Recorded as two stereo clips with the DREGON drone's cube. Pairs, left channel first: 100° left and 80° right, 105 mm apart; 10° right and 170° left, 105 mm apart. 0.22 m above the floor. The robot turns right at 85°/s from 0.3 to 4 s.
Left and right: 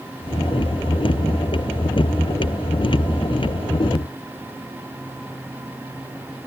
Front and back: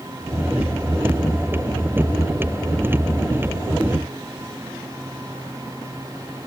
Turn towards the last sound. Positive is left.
No sound to turn to.